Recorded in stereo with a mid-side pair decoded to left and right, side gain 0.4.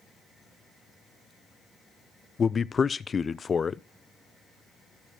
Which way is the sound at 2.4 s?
40° left.